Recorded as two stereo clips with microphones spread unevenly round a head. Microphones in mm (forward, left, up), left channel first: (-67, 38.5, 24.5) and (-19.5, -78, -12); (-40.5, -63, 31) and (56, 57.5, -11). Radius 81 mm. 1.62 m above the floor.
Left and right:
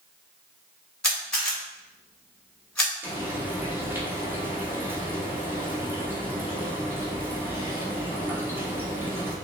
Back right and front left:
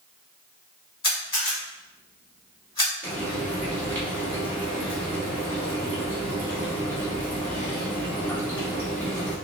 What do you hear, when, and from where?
1.0 s a camera shutter: 175° right, 2 m
3.0 s frying: 155° right, 1.2 m